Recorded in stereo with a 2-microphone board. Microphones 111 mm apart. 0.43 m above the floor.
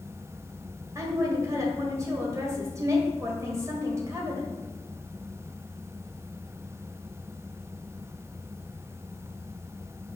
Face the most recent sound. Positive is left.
turn(degrees=-30)  # may be behind; listen again after turning